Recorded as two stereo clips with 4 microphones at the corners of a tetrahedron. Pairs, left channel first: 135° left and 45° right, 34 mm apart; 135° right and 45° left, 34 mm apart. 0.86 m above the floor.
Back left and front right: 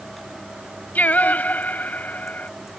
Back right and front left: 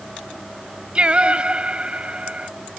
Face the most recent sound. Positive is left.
turn(degrees=100)